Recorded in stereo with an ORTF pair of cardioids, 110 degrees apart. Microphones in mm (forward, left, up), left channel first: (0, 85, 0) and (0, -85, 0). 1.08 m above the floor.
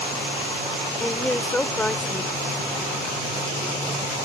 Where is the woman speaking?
5° left.